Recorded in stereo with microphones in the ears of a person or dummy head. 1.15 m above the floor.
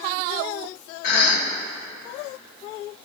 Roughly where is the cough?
Left.